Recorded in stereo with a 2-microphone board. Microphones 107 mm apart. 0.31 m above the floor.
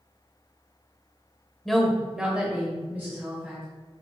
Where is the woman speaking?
Centre (ahead or behind), 0.8 m; by 3.6 s 15° right (ahead or behind), 1.6 m.